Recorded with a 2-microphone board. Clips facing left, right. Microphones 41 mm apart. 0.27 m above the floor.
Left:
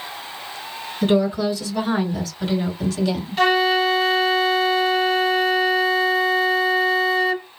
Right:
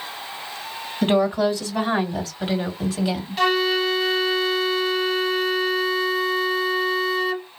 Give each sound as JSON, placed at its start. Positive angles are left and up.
{"t": 1.0, "sound": "a woman speaking", "side_deg": -45, "distance_m": 2.5}
{"t": 3.4, "sound": "a flute", "side_deg": 0, "distance_m": 1.1}